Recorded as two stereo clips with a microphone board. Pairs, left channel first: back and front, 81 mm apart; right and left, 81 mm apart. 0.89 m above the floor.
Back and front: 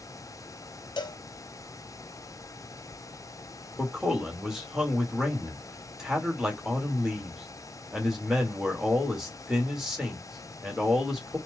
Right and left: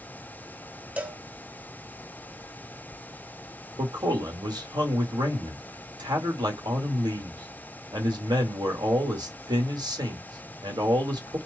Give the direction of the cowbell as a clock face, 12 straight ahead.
7 o'clock.